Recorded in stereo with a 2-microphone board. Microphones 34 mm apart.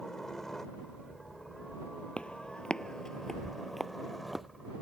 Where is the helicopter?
15° left (ahead or behind); by 4.8 s 5° left (ahead or behind).